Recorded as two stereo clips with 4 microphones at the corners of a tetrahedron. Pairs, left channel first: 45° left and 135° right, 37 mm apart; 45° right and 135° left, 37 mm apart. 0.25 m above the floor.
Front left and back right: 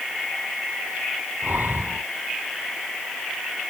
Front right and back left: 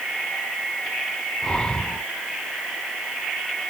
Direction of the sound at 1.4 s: 110° right.